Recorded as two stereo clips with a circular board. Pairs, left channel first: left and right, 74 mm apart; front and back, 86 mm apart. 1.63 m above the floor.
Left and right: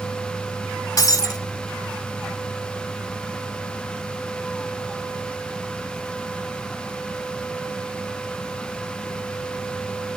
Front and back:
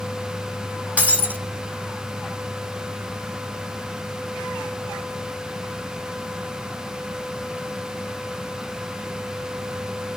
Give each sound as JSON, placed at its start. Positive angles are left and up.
{"t": 1.0, "sound": "breaking glass", "azimuth_deg": 115, "distance_m": 1.8}